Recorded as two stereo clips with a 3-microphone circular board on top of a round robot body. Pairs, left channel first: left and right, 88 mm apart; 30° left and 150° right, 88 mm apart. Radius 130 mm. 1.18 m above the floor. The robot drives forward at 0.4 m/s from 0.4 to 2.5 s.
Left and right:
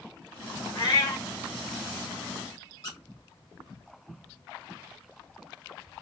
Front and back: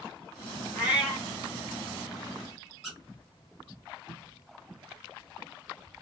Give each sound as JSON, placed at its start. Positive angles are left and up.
{"t": 0.8, "sound": "a cat meowing", "azimuth_deg": 135, "distance_m": 1.9}
{"t": 2.8, "sound": "a squeak", "azimuth_deg": 125, "distance_m": 1.1}